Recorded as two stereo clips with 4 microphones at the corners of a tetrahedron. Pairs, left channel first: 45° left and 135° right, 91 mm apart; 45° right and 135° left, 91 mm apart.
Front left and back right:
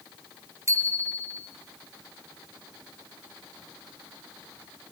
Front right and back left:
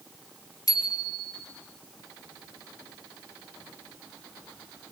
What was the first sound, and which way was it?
A bicycle bell, 85° right.